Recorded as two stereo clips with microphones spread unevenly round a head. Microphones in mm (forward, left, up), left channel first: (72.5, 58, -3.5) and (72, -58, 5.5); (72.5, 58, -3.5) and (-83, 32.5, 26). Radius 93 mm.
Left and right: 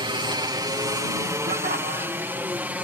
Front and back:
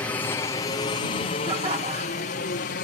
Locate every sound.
0.0 s a helicopter: 60° right; by 2.9 s 15° right
1.5 s laughter: 115° right